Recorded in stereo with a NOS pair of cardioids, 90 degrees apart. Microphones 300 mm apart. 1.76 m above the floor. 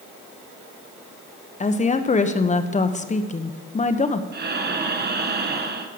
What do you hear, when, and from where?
1.6 s a woman speaking: 25° left, 1.2 m
4.3 s breathing: 35° right, 1.4 m